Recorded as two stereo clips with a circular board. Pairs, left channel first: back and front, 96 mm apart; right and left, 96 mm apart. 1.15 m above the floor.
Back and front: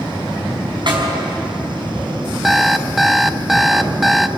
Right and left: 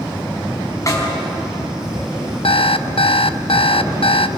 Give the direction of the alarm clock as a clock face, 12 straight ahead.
3 o'clock.